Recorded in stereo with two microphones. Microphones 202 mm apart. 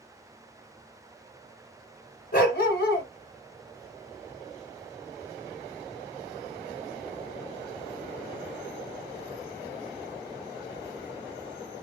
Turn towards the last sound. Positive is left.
turn(degrees=55)  # may be behind; listen again after turning